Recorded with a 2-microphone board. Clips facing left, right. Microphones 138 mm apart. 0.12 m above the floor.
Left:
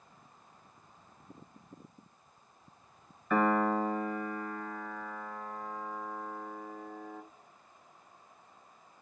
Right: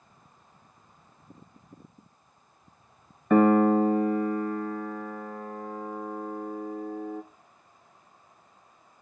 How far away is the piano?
About 0.7 m.